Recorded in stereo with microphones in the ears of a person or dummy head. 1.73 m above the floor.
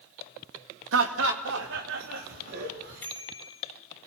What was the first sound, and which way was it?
Laughter, 85° right.